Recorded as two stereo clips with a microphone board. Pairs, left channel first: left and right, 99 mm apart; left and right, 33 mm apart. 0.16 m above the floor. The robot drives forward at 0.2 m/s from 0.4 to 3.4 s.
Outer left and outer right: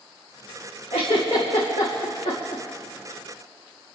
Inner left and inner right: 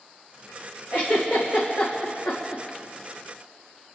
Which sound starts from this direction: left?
A giggle, at 0.9 s.